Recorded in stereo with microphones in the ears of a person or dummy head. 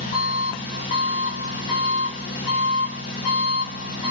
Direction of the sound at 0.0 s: 40° left (ahead or behind).